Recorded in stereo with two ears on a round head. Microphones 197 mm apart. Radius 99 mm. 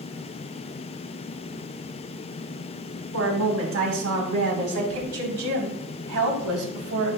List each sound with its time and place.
3.1 s a woman speaking: 65° right (ahead or behind), 6 m; by 7.2 s 80° right, 4 m